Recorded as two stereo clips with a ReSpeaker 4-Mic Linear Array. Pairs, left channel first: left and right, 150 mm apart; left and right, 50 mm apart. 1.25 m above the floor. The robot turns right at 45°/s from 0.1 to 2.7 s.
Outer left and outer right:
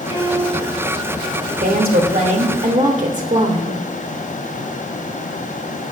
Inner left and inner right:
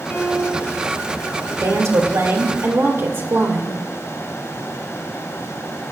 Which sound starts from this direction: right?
A woman speaking, at 1.6 s.